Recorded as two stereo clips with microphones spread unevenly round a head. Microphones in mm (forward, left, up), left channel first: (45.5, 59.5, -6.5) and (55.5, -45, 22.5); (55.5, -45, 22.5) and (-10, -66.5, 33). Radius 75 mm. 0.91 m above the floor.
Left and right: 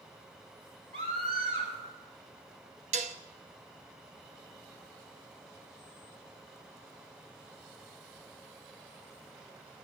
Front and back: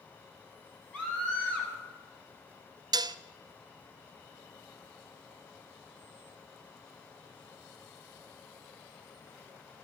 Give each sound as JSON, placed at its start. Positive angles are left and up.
{"t": 0.9, "sound": "a scream", "azimuth_deg": -50, "distance_m": 8.0}
{"t": 2.9, "sound": "dishes clattering", "azimuth_deg": -135, "distance_m": 0.6}